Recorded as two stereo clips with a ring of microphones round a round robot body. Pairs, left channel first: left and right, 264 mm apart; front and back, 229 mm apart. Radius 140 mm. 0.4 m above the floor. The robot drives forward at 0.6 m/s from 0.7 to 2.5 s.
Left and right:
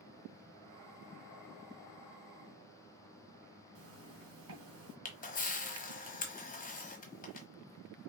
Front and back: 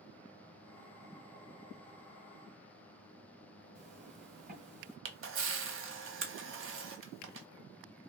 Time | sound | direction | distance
3.8 | a zipper | 125° right | 2.5 m
5.0 | a camera shutter | 150° left | 1.3 m